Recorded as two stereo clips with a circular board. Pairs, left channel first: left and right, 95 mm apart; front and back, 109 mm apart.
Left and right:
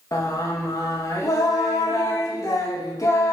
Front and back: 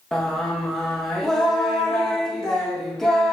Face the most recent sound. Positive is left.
turn(degrees=85)